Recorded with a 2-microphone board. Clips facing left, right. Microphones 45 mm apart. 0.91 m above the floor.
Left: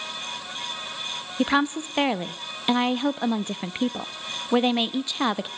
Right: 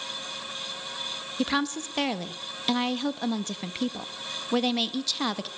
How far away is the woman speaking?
About 0.8 m.